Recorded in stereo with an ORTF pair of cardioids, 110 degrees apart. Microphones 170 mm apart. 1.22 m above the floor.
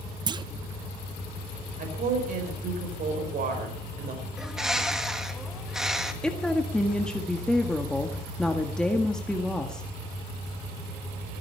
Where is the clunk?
25° right, 0.7 m.